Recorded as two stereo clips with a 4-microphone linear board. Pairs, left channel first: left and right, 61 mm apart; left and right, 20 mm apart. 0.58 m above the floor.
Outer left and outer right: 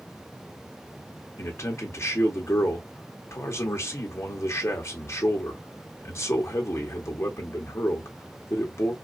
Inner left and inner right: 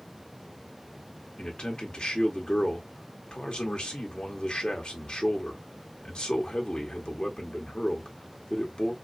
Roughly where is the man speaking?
Left.